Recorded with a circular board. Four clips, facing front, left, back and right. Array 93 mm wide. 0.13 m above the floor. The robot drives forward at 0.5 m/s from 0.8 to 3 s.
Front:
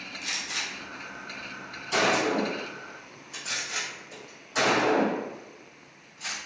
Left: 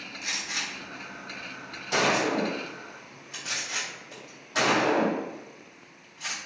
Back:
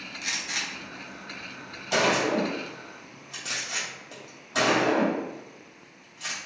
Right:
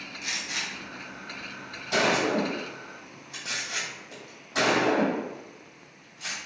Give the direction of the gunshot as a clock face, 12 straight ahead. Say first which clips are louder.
Even, back 2 dB; 6 o'clock.